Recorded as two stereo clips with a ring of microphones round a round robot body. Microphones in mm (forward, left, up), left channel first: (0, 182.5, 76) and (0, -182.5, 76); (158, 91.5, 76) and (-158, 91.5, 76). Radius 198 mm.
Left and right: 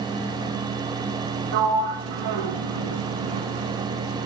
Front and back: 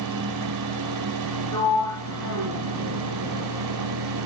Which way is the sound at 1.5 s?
85° right.